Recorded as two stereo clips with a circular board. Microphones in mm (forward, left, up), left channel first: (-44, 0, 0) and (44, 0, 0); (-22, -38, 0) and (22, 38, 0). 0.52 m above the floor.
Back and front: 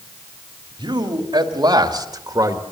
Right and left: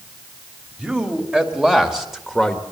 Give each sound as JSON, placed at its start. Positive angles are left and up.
{"t": 0.8, "sound": "a man speaking", "azimuth_deg": -15, "distance_m": 2.5}